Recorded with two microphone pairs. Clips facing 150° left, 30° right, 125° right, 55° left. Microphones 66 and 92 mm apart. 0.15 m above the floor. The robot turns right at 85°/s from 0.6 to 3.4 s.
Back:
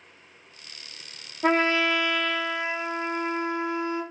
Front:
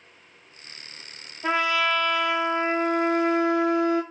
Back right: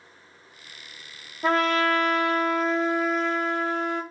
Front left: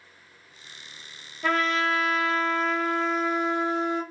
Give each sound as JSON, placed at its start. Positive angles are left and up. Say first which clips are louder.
{"t": 1.4, "sound": "a trumpet", "louder": "back 1 dB, back right 3 dB", "azimuth_deg": 175, "distance_m": 0.6}